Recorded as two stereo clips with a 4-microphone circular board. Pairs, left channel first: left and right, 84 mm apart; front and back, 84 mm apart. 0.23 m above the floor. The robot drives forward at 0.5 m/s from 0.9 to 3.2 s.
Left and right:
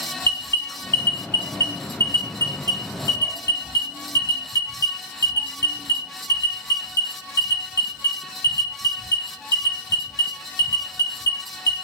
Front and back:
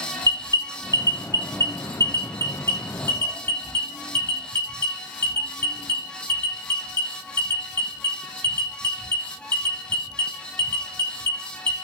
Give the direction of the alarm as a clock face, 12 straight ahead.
11 o'clock.